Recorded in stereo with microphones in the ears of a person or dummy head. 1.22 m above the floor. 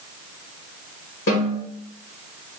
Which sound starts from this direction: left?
A snare drum, at 1.3 s.